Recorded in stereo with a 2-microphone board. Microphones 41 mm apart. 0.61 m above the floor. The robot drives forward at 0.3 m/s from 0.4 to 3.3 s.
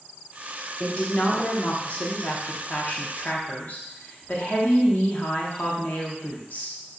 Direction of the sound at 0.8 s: 35° left (ahead or behind).